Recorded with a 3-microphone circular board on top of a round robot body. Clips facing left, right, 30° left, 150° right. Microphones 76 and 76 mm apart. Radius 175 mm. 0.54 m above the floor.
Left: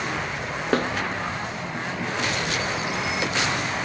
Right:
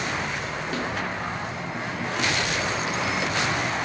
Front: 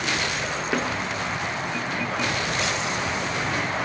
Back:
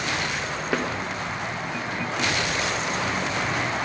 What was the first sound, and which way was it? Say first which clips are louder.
A snare drum: left 8 dB, even; 120° left.